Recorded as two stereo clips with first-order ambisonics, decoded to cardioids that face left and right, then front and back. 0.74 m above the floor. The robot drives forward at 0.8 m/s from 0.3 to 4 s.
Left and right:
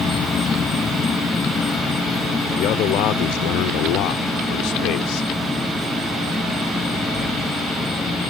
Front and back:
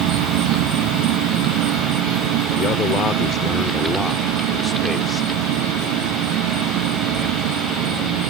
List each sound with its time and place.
0.0 s an insect: 160° left; by 8.3 s 170° left
2.6 s a man speaking: 50° left; by 5.3 s 80° left